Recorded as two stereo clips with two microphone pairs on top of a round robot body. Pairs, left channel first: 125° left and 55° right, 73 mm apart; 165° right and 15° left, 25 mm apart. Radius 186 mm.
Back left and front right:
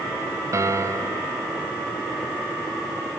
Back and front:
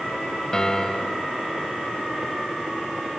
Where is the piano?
100° right.